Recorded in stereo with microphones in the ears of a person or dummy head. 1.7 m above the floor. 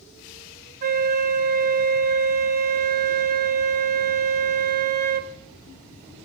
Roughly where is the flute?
Right.